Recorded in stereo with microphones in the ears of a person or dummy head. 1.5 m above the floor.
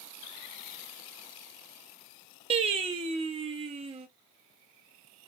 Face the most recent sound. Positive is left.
turn(degrees=-35)  # may be behind; listen again after turning